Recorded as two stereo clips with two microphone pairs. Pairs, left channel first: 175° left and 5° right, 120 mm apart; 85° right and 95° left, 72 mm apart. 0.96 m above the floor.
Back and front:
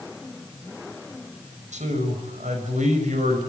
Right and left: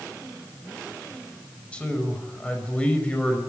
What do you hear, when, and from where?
1.7 s a man speaking: 10° right, 6 m